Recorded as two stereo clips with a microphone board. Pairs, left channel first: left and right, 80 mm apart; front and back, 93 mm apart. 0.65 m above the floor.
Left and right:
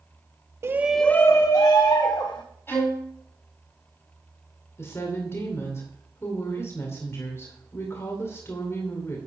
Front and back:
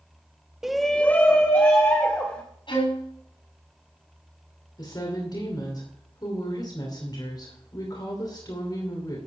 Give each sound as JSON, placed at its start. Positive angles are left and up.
{"t": 0.6, "sound": "a shout", "azimuth_deg": -100, "distance_m": 0.8}
{"t": 2.7, "sound": "a violin", "azimuth_deg": 30, "distance_m": 6.0}
{"t": 4.8, "sound": "a woman speaking", "azimuth_deg": 35, "distance_m": 2.5}